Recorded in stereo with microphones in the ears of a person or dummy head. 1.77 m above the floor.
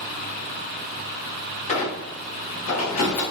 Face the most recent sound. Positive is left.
turn(degrees=50)  # may be behind; listen again after turning